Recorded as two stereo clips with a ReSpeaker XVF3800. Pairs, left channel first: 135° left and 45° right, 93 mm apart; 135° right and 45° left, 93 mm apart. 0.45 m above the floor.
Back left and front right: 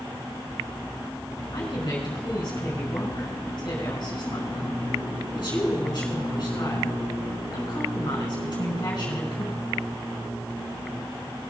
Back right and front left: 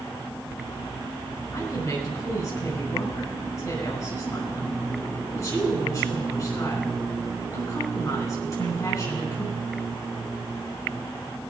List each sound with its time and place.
1.5 s a woman speaking: 175° left, 5 m